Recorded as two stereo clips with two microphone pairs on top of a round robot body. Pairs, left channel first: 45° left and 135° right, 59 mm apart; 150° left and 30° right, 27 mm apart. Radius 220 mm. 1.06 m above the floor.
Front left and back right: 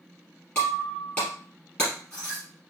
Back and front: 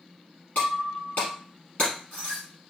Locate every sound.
0.6 s breaking glass: 110° left, 3 m